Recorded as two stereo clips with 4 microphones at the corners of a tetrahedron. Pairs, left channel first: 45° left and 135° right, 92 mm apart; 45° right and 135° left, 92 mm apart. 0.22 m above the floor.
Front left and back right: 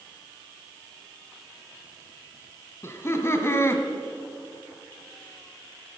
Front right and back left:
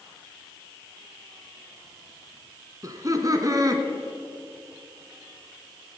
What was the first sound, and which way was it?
Laughter, 100° left.